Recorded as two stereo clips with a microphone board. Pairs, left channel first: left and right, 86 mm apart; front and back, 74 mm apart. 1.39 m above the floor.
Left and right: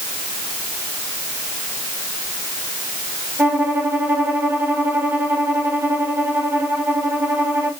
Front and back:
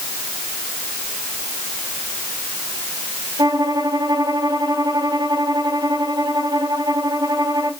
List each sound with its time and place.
3.4 s a violin: 160° right, 3.5 m